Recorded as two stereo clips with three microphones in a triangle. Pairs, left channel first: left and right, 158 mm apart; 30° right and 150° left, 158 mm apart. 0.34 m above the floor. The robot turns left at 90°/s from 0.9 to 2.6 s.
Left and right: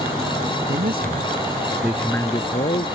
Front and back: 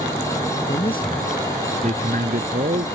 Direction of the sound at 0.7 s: 80° right.